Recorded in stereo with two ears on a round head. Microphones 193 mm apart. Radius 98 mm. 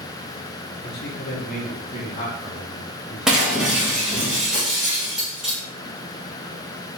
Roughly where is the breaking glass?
Centre.